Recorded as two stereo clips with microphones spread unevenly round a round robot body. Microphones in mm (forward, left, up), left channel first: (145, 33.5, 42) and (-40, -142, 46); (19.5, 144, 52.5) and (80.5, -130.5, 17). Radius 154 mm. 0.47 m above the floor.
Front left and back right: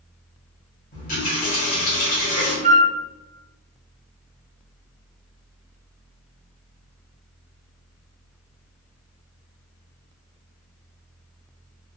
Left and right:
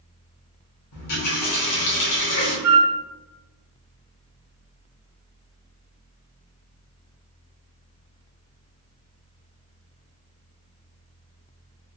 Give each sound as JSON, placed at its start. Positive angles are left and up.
{"t": 0.9, "sound": "a running tap", "azimuth_deg": 100, "distance_m": 1.2}
{"t": 2.6, "sound": "a flute", "azimuth_deg": -75, "distance_m": 0.8}